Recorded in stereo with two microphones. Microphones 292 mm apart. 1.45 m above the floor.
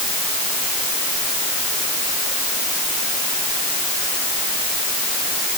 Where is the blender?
I don't hear a blender.